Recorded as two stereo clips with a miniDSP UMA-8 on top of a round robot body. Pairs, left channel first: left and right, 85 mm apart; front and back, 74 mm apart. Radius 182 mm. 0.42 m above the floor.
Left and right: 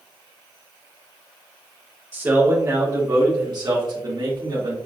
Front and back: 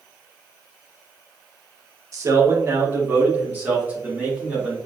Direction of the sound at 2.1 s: 150° right.